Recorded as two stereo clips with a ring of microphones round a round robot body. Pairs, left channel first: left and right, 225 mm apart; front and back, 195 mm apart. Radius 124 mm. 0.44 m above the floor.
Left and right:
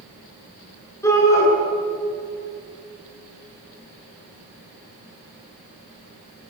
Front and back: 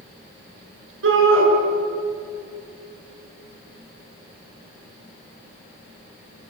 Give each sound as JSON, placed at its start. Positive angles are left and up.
{"t": 1.0, "sound": "a shout", "azimuth_deg": 170, "distance_m": 7.5}